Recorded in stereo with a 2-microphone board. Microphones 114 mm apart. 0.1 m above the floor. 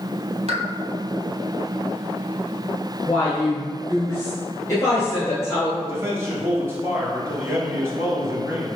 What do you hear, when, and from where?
0.5 s a pop: 70° right (ahead or behind), 0.7 m
3.1 s a woman speaking: 25° left (ahead or behind), 1.3 m
5.8 s a man speaking: 20° right (ahead or behind), 1.4 m